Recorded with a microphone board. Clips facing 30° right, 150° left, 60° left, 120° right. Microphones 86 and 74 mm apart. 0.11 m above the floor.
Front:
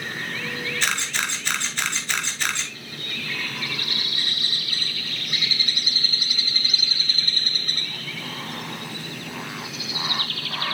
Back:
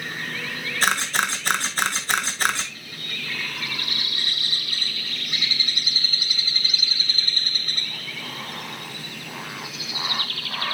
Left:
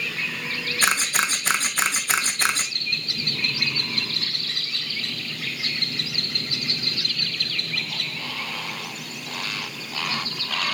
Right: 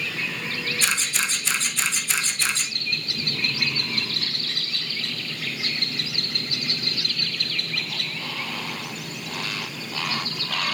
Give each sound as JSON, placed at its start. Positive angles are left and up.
{"t": 0.8, "sound": "a camera shutter", "azimuth_deg": 100, "distance_m": 1.5}